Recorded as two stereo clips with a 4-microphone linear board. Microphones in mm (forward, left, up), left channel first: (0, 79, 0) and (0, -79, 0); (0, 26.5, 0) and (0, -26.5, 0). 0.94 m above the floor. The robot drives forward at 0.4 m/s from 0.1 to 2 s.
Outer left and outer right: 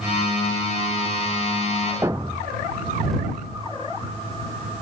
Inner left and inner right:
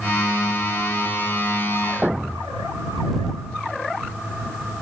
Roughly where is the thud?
Centre.